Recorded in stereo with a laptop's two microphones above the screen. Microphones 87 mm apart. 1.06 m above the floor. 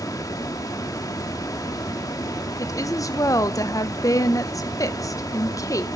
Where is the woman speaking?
40° left (ahead or behind), 0.6 m.